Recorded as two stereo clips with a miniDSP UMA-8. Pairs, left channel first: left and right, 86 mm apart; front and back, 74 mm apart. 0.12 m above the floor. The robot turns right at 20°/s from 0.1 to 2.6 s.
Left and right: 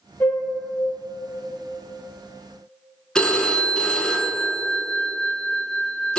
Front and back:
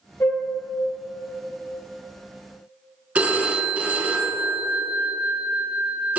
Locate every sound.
0.2 s a flute: 40° left, 1.4 m; by 0.4 s 45° left, 1.4 m
3.1 s a phone ringing: 155° left, 0.7 m